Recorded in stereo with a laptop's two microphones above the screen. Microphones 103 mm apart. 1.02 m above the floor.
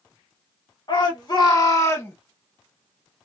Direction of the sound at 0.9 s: 45° left (ahead or behind).